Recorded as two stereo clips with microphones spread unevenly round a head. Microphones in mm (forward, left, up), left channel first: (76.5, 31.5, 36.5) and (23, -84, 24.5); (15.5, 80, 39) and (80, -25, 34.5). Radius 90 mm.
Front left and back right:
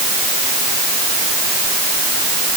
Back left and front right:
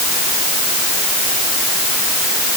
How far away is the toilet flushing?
No toilet flushing in this recording.